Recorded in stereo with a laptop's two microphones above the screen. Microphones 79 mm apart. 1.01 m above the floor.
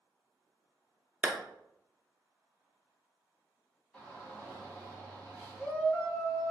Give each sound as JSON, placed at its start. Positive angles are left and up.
{"t": 1.2, "sound": "a clap", "side_deg": -20, "distance_m": 0.6}
{"t": 3.9, "sound": "a shout", "side_deg": 10, "distance_m": 1.0}